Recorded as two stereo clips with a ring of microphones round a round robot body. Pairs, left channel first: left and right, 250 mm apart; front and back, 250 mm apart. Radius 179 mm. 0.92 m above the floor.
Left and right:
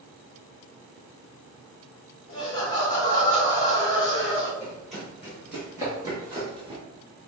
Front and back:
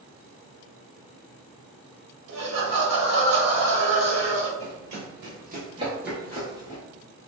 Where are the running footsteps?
175° left, 1.5 m; by 6.8 s 35° right, 1.0 m.